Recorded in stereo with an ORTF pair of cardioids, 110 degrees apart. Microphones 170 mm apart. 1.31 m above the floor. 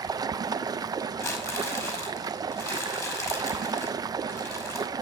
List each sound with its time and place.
0.0 s running water: 25° right, 0.7 m
1.2 s crumpling: 15° left, 5 m